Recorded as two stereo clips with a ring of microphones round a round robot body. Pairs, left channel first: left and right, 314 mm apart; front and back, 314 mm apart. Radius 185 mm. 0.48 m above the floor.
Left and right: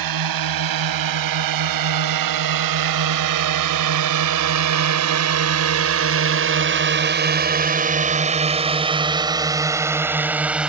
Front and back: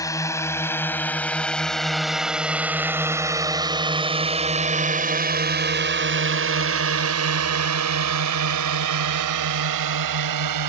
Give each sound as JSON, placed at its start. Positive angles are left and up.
{"t": 0.0, "sound": "a drone", "azimuth_deg": -80}